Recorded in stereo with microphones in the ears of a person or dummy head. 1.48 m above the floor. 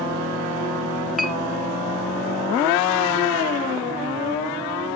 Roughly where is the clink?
Centre.